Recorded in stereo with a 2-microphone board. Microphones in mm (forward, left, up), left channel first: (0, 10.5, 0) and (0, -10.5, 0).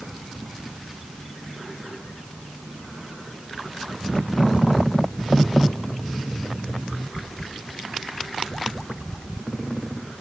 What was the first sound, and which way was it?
Only background noise.